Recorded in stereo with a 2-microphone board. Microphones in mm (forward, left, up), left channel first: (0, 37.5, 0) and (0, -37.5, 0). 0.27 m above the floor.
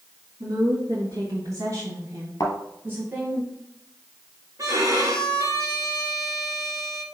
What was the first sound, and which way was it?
A woman speaking, 60° right (ahead or behind).